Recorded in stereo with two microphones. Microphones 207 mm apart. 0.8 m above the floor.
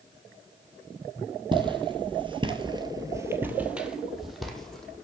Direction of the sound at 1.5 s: 25° right (ahead or behind).